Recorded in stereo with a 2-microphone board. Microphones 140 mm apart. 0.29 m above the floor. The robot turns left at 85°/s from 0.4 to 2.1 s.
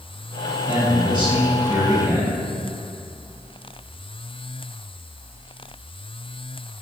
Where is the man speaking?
25° right, 1.2 m; by 2.3 s 145° right, 1.2 m.